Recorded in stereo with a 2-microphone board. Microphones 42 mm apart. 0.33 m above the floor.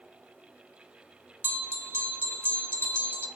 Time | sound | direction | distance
1.4 | a bell | 60° right (ahead or behind) | 1.1 m